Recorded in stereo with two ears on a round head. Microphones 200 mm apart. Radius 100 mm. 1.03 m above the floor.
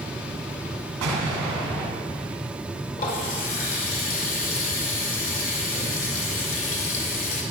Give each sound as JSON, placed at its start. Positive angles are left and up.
{"t": 1.0, "sound": "an explosion", "side_deg": -75, "distance_m": 3.0}
{"t": 3.0, "sound": "a running tap", "side_deg": 40, "distance_m": 2.0}